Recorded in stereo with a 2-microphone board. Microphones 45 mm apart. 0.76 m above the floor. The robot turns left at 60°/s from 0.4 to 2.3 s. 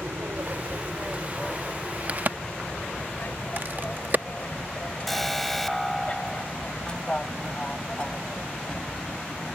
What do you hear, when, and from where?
0.0 s an aircraft: 55° right (ahead or behind); by 9.6 s 20° left (ahead or behind)
2.1 s a crack: 35° right (ahead or behind); by 4.2 s 45° right (ahead or behind)
5.1 s an alarm: 5° left (ahead or behind)